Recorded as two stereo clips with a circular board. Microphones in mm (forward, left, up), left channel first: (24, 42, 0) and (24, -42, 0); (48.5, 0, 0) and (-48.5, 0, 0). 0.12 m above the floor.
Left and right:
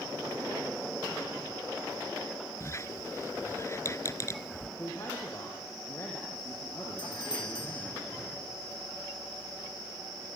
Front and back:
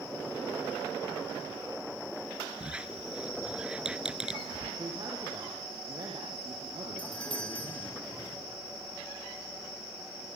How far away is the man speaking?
About 5.5 m.